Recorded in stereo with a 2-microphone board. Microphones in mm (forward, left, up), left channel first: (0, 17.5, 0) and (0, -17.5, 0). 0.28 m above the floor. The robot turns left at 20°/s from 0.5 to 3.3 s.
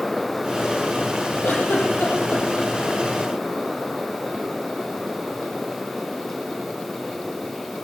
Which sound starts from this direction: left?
A giggle, at 1.4 s.